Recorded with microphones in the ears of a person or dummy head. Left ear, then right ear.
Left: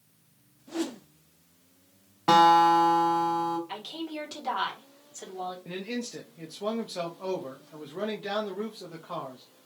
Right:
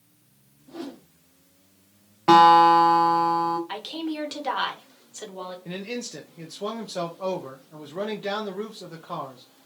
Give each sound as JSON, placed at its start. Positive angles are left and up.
{"t": 0.7, "sound": "a whoosh", "side_deg": 70, "distance_m": 0.5}
{"t": 2.3, "sound": "a guitar", "side_deg": 5, "distance_m": 0.9}
{"t": 3.7, "sound": "a woman speaking", "side_deg": -25, "distance_m": 1.5}
{"t": 5.7, "sound": "a man speaking", "side_deg": -5, "distance_m": 0.6}